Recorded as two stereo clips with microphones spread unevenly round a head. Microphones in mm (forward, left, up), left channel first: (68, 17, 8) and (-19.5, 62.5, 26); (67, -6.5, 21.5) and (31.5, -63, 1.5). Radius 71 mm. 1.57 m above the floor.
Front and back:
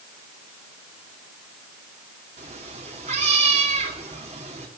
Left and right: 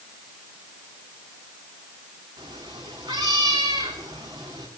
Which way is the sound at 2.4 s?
170° left.